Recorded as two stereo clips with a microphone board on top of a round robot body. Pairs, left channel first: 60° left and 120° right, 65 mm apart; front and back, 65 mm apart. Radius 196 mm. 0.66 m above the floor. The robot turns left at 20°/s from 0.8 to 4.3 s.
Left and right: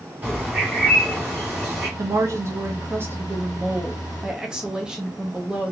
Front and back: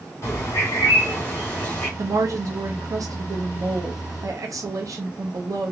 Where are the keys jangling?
I don't hear keys jangling.